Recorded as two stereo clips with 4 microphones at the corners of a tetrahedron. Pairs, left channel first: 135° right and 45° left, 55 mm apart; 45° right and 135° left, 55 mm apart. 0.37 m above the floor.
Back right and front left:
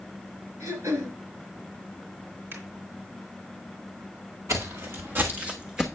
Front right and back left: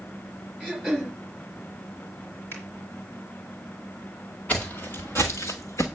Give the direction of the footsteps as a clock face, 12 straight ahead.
11 o'clock.